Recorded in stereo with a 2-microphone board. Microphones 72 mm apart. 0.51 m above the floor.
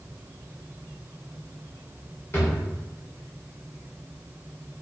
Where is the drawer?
35° left (ahead or behind), 1.2 m.